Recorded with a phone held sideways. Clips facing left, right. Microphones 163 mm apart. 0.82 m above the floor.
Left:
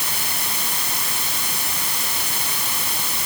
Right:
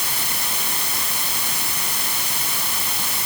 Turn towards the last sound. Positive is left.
No sound to turn to.